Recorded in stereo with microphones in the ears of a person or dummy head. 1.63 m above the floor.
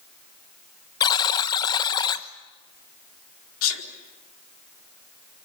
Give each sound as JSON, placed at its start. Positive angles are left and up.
{"t": 1.0, "sound": "a buzzer", "side_deg": 20, "distance_m": 0.9}
{"t": 3.6, "sound": "a sneeze", "side_deg": 75, "distance_m": 4.0}